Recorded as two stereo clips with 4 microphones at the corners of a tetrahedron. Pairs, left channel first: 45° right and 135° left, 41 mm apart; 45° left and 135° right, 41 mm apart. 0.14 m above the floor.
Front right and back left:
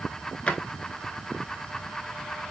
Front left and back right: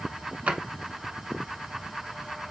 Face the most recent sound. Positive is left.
turn(degrees=-95)